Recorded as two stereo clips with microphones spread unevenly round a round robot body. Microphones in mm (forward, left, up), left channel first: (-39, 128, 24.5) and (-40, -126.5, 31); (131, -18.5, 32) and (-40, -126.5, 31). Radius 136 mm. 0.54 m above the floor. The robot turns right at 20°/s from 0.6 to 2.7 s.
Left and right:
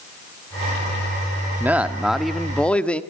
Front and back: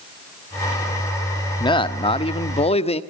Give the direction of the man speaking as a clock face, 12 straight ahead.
12 o'clock.